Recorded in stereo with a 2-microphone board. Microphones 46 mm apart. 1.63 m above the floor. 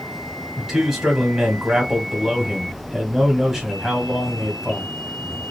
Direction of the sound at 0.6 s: 10° right (ahead or behind).